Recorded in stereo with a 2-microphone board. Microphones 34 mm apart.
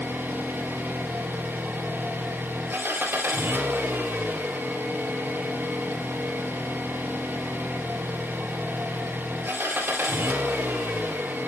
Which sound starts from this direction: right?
An engine running, at 0.0 s.